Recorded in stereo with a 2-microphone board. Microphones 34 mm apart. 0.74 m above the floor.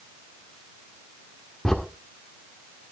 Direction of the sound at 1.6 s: 15° left (ahead or behind).